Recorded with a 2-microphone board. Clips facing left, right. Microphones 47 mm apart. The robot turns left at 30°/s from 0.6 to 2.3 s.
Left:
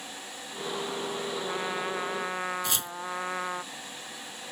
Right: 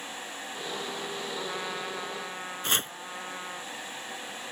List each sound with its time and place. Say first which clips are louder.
1.3 s a trumpet: left 3 dB; centre (ahead or behind); by 3.6 s 30° left (ahead or behind)
2.6 s chopping: right 3 dB; 45° right (ahead or behind)